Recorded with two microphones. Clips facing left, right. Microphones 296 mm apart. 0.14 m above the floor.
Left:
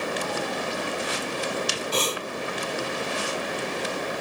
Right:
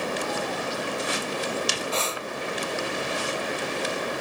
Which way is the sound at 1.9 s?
40° left (ahead or behind).